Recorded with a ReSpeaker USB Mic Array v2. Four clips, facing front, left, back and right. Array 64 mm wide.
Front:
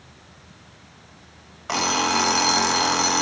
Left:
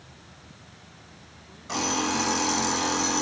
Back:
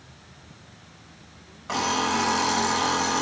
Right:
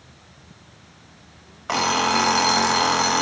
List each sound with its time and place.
1.7 s an alarm clock: 65° right, 0.7 m